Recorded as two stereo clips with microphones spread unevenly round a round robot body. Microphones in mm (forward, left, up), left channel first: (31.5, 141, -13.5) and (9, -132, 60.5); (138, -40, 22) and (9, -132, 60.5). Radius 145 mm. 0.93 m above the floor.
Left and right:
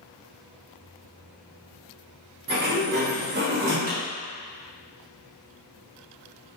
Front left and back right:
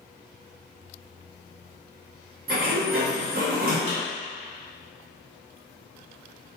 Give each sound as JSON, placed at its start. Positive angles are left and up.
{"t": 2.5, "sound": "a sliding door", "azimuth_deg": -155, "distance_m": 0.6}
{"t": 3.9, "sound": "a clap", "azimuth_deg": -160, "distance_m": 1.4}